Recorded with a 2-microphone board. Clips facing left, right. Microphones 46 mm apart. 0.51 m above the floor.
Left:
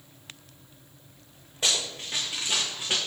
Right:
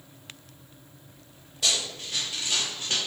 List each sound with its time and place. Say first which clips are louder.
1.6 s running footsteps: even; 30° left (ahead or behind), 2 m; by 3.0 s 10° left (ahead or behind), 1.6 m